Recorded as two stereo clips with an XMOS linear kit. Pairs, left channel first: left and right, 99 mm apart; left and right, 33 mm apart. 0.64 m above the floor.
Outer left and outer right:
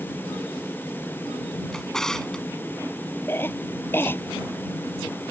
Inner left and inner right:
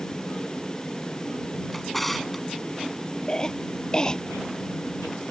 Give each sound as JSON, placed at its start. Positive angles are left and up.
{"t": 1.7, "sound": "a drawer", "side_deg": 5}
{"t": 3.3, "sound": "a cough", "side_deg": 20}